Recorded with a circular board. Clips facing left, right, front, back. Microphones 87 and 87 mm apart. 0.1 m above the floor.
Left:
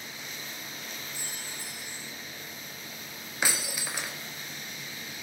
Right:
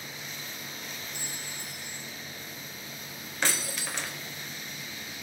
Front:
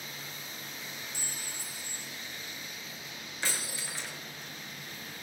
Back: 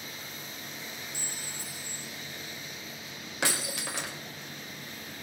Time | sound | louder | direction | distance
1.1 | a clink | right 1 dB, back 1 dB | 140° left | 4.5 m
3.4 | breaking glass | even, back 6 dB | 170° left | 4 m